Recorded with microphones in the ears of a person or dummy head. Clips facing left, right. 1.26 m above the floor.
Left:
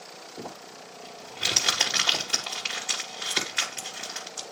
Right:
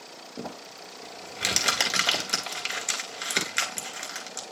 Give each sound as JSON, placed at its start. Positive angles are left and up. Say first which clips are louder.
{"t": 0.4, "sound": "crumpling", "louder": "right 2 dB", "side_deg": -45, "distance_m": 3.0}